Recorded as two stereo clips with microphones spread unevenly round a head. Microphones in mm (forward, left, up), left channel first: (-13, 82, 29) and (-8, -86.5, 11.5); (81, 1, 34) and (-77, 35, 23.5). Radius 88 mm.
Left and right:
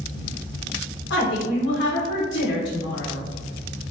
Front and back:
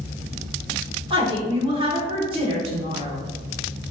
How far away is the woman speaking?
About 0.9 m.